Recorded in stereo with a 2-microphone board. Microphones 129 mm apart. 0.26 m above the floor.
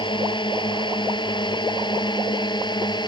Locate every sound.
0.0 s a drone: 35° left (ahead or behind)